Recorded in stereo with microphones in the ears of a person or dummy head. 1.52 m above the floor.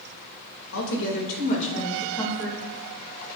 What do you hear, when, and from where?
0.7 s a woman speaking: 80° left, 2.5 m; by 2.6 s 5° left (ahead or behind), 2.5 m